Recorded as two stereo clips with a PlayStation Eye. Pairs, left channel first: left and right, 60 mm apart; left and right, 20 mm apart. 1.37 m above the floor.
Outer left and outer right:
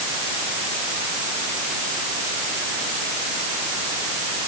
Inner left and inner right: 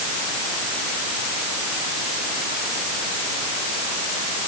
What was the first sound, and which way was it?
Only background noise.